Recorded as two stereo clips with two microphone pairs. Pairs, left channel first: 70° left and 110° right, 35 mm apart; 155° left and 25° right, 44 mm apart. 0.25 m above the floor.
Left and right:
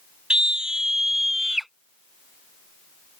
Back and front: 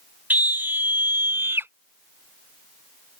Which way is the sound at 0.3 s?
50° right.